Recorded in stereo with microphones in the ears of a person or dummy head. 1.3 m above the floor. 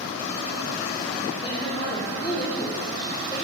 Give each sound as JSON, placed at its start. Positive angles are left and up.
{"t": 1.4, "sound": "a woman speaking", "side_deg": 20, "distance_m": 1.1}